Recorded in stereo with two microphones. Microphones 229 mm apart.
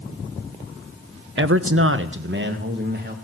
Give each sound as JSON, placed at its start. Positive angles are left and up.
{"t": 1.4, "sound": "a man speaking", "side_deg": -50, "distance_m": 0.6}